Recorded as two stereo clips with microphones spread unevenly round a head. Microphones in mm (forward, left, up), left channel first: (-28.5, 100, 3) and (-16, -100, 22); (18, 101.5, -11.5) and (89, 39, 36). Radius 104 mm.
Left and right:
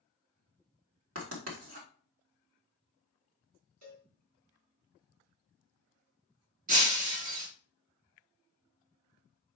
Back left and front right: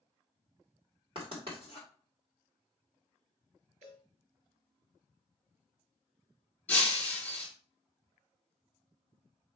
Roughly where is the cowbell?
Right.